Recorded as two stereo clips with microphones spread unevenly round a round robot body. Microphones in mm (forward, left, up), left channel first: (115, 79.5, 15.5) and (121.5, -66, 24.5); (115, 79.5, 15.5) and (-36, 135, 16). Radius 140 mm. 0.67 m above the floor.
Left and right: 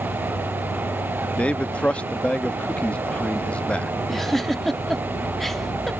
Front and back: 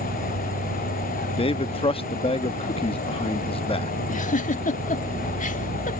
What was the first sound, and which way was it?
An insect, 135° left.